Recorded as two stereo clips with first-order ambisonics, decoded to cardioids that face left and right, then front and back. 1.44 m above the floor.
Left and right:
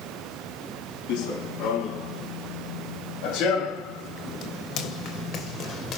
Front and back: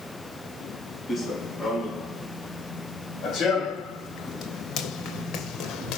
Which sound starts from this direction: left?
Running footsteps, at 1.1 s.